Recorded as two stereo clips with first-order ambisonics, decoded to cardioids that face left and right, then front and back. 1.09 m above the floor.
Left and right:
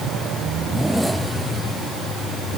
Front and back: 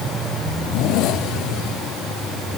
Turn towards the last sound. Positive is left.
No sound to turn to.